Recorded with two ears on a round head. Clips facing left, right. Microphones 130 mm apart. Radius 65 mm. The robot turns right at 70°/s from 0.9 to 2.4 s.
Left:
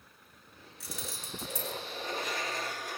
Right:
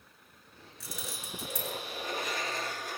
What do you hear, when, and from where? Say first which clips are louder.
0.8 s keys jangling: even; 85° right, 6.5 m; by 1.8 s 35° right (ahead or behind), 6.5 m